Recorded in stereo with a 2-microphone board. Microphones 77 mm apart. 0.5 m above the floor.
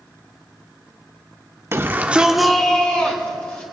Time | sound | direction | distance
1.7 | a shout | 35° right (ahead or behind) | 1.1 m